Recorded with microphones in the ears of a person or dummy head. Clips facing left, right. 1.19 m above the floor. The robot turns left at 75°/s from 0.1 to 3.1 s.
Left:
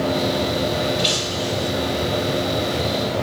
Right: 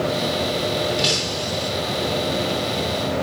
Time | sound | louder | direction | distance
1.0 | breaking glass | left 1 dB | 60° right | 9.5 m